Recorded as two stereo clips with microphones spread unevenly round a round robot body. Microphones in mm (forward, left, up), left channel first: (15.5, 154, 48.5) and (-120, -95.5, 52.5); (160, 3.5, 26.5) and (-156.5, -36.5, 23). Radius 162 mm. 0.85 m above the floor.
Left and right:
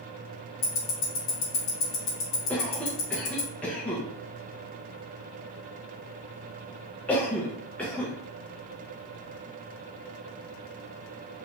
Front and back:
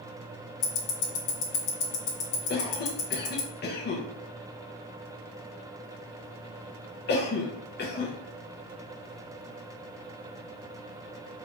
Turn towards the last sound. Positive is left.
turn(degrees=-20)